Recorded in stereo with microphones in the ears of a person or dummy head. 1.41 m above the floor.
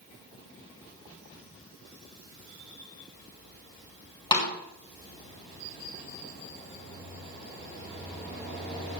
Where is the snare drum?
25° left (ahead or behind), 2.5 m.